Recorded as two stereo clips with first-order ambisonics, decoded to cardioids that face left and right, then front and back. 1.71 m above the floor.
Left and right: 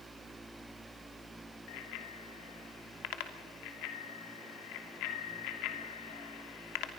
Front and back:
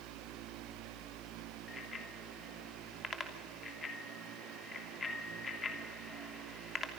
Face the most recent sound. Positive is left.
turn(degrees=75)